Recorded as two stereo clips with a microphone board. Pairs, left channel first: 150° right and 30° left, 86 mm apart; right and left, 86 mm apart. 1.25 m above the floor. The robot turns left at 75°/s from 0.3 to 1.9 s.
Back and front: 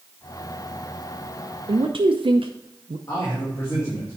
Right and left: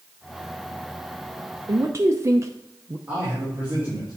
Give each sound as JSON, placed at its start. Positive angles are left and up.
{"t": 1.7, "sound": "a man speaking", "azimuth_deg": 50, "distance_m": 0.6}
{"t": 3.1, "sound": "a man speaking", "azimuth_deg": 160, "distance_m": 2.5}